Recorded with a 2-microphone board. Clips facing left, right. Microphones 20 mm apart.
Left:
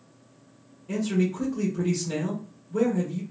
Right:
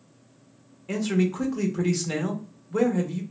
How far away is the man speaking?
About 1.2 m.